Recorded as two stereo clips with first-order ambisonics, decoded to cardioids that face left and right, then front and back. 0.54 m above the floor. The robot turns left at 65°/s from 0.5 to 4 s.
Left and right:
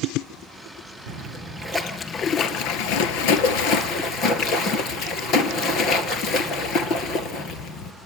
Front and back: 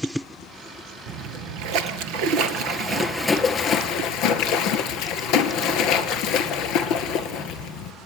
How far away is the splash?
About 2 m.